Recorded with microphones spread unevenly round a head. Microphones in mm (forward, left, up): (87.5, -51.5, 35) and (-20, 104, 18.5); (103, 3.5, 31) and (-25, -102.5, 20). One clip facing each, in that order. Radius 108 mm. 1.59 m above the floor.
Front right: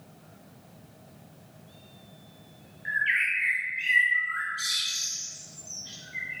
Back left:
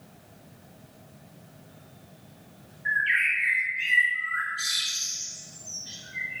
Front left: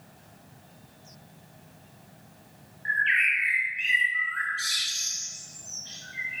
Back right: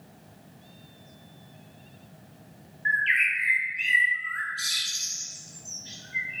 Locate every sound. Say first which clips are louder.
2.9 s a bird: back left 2 dB, even; 130° right, 1.4 m